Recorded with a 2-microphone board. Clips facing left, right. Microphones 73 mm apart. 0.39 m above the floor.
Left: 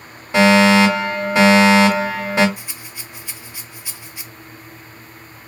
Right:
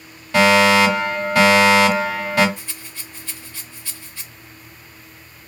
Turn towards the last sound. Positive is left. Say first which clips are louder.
# left 1 dB
turn(degrees=15)  # may be behind; listen again after turning